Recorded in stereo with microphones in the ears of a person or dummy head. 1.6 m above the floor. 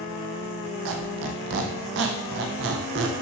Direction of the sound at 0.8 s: 55° right (ahead or behind).